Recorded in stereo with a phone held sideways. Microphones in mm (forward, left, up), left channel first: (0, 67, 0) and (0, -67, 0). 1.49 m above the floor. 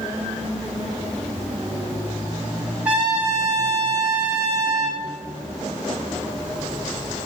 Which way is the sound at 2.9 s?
10° right (ahead or behind).